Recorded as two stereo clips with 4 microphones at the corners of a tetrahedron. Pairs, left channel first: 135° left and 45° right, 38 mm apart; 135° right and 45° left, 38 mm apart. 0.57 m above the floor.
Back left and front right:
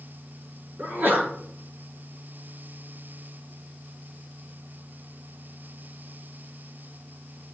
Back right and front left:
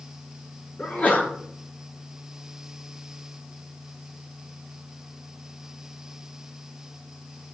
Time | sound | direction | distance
0.8 | a sneeze | 85° right | 7.5 m